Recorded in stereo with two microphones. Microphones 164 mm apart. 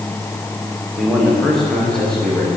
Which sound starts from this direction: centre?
A man speaking, at 1.0 s.